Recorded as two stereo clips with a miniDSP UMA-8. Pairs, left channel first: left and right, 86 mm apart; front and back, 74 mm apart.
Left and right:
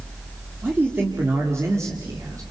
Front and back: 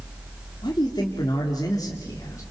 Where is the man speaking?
20° right, 3 m; by 2.4 s 40° right, 3.5 m.